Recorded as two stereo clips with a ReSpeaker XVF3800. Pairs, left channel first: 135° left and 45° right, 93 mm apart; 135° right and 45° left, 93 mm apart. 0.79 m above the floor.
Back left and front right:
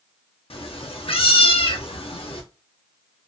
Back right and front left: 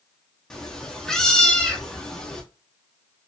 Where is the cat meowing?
140° left, 0.6 m.